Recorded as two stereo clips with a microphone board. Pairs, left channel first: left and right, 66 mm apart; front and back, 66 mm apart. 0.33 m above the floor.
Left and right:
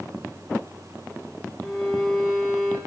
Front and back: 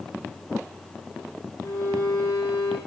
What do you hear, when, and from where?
1.6 s a violin: 5° left, 4.5 m